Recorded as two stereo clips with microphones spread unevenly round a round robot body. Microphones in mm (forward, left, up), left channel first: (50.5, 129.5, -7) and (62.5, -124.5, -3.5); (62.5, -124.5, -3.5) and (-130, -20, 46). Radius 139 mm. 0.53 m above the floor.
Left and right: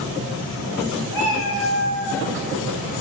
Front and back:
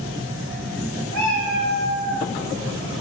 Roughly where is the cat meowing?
Behind left.